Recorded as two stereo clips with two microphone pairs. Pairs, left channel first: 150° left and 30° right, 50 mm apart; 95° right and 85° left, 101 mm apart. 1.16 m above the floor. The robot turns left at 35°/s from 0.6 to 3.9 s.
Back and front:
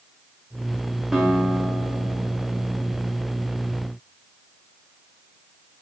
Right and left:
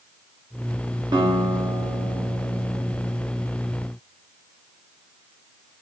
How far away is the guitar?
About 0.7 m.